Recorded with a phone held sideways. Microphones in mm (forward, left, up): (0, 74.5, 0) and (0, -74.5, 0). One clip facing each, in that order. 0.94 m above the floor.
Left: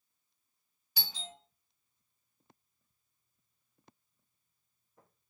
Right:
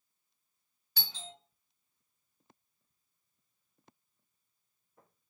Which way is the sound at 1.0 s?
10° left (ahead or behind).